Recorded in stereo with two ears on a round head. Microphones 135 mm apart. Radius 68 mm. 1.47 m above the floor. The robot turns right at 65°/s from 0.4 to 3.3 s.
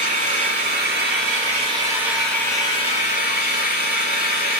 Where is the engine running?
120° right, 5.5 m; by 4.6 s 70° left, 5.5 m.